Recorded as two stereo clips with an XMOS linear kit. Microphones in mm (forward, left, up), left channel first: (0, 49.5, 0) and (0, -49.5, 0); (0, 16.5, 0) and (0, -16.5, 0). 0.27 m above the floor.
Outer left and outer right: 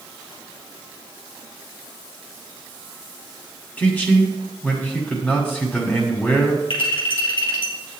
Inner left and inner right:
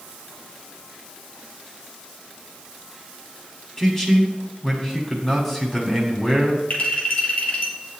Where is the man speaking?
20° left (ahead or behind), 1.8 m.